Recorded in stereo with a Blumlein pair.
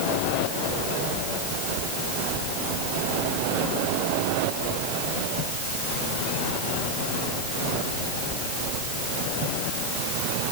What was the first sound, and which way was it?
Only background noise.